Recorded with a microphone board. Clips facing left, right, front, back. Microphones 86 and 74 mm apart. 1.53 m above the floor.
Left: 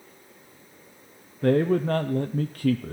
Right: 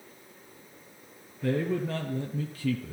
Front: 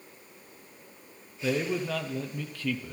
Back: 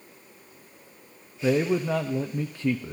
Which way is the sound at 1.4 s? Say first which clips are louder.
Left 7 dB, back 6 dB; 115° left.